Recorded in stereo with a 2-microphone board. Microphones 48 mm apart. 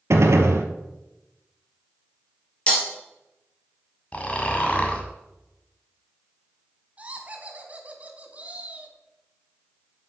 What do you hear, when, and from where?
0.1 s a gunshot: 70° right (ahead or behind), 0.9 m
2.7 s breaking glass: 30° left (ahead or behind), 2.5 m
4.1 s snoring: 30° left (ahead or behind), 1.4 m
7.0 s laughter: 30° right (ahead or behind), 1.4 m